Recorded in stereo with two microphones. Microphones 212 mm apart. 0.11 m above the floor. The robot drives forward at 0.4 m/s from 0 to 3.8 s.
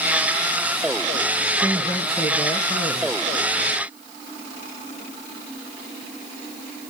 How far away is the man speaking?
About 1.1 m.